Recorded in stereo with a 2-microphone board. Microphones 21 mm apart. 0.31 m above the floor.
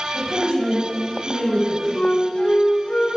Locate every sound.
0.1 s a woman speaking: 25° right (ahead or behind), 1.8 m; by 1.8 s 40° right (ahead or behind), 3 m
1.9 s a flute: 60° left (ahead or behind), 0.8 m